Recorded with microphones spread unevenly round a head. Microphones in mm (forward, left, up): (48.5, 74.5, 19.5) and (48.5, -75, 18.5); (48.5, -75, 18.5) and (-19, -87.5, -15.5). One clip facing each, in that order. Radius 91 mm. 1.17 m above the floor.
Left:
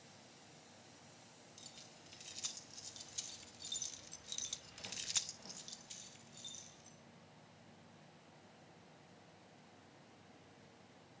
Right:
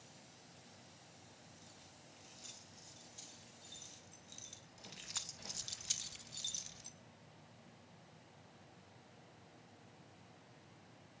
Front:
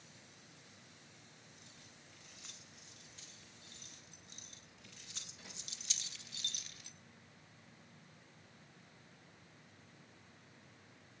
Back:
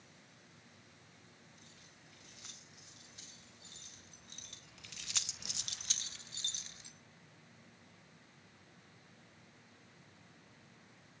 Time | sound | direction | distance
1.6 | keys jangling | 100° left | 4.5 m